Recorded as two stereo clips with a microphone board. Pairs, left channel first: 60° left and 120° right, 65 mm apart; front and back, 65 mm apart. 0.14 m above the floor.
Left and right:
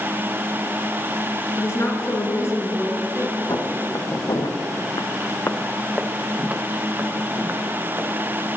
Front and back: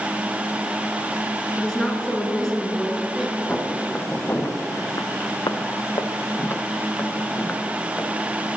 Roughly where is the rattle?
I don't hear a rattle.